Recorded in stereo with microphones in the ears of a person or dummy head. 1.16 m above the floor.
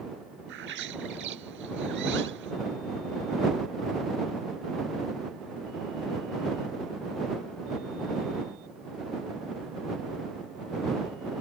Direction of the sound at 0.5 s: 60° right (ahead or behind).